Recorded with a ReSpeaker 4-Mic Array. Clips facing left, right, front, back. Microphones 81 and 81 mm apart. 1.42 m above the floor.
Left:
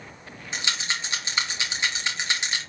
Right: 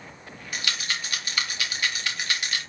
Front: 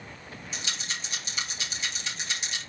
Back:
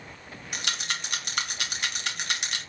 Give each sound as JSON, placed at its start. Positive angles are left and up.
{"t": 0.5, "sound": "a rattle", "azimuth_deg": 155, "distance_m": 2.5}